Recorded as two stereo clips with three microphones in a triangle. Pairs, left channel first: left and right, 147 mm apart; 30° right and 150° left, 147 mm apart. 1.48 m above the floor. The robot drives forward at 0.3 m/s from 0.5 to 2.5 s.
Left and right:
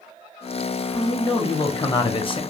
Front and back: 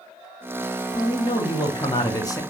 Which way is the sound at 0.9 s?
20° left.